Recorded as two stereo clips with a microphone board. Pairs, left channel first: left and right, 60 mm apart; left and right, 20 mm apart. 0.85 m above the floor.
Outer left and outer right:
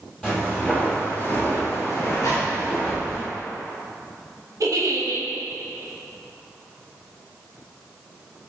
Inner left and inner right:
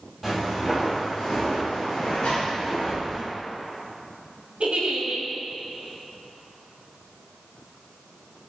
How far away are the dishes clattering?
I don't hear dishes clattering.